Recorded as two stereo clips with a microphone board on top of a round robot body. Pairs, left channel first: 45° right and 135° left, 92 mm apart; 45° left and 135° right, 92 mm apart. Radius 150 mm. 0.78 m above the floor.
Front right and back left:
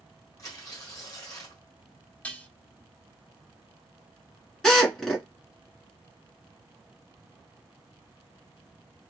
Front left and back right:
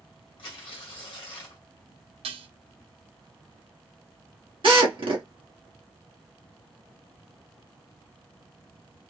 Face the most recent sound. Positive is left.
turn(degrees=-125)